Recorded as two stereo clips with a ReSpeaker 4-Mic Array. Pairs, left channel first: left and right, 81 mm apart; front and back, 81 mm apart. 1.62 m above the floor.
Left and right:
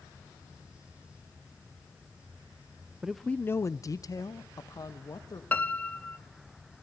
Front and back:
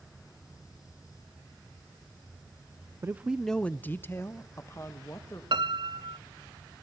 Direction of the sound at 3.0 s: 160° right.